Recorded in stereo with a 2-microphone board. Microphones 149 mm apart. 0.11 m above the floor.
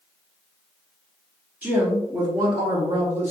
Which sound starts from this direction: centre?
A woman speaking, at 1.6 s.